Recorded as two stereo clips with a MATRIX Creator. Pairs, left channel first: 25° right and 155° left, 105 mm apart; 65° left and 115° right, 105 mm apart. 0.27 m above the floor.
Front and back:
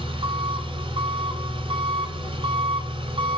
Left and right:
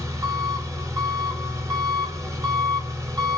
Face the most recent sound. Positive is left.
turn(degrees=-170)